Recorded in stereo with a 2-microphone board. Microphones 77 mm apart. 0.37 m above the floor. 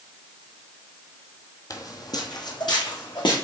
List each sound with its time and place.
1.7 s footsteps: 50° left (ahead or behind), 0.8 m; by 3.5 s 75° left (ahead or behind), 2.0 m